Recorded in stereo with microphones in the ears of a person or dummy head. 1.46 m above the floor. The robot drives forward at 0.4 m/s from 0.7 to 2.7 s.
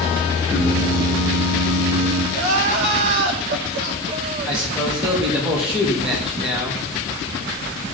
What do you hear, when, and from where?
0.5 s singing: 10° right (ahead or behind), 2.5 m
2.3 s crying: 50° right (ahead or behind), 1.3 m
4.5 s a man speaking: 10° right (ahead or behind), 3 m